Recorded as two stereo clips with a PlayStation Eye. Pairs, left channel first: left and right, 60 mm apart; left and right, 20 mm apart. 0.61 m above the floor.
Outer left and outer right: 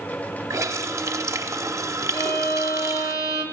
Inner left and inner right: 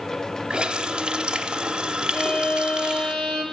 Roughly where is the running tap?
Right.